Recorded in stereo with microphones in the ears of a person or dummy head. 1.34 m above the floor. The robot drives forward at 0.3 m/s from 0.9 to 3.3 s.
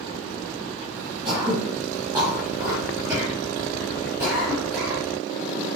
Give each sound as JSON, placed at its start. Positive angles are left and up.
{"t": 1.2, "sound": "throat clearing", "side_deg": -25, "distance_m": 1.5}